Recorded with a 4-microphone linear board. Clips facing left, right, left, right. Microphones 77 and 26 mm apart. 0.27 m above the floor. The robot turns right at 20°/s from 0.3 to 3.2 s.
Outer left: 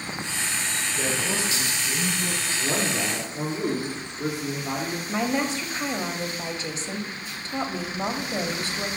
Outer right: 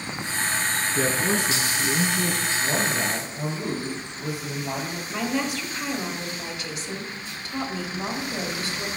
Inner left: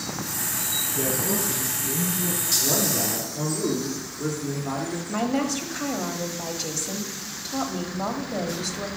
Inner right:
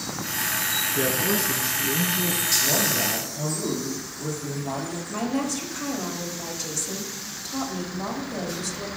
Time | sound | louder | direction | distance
0.9 | a man speaking | outer right 4 dB, inner right 2 dB | 140° right | 2.5 m
2.6 | a man speaking | even, even | 75° left (ahead or behind) | 4.5 m
5.1 | a woman speaking | outer left 1 dB, inner left 2 dB | 30° left (ahead or behind) | 1.1 m